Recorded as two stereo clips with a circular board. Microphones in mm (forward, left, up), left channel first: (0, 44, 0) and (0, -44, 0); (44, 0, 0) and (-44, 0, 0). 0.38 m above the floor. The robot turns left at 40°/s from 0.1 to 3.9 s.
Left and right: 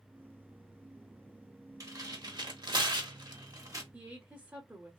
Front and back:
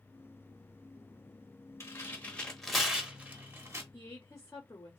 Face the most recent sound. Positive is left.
turn(degrees=-35)